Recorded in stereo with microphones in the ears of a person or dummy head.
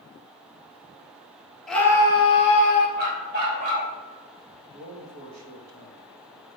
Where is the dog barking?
45° right (ahead or behind), 3 m.